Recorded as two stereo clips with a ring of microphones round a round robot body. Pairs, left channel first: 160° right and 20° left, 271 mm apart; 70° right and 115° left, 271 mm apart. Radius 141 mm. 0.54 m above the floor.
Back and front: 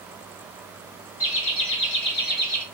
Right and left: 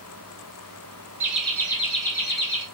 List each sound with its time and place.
1.2 s laughter: 170° right, 1.6 m; by 2.6 s 100° right, 1.9 m